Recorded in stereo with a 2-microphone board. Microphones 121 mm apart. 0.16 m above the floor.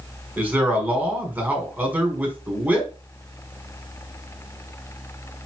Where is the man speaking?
10° right (ahead or behind), 1.4 m.